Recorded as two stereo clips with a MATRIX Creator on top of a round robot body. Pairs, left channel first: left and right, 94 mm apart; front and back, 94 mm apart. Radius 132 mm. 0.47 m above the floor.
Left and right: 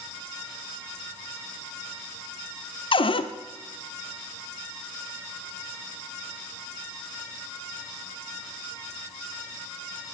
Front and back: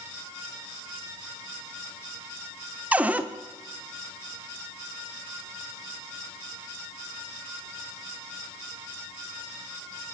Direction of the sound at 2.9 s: 105° left.